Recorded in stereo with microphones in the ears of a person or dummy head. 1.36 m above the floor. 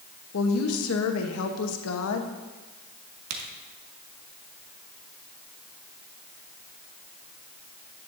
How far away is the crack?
About 1.5 m.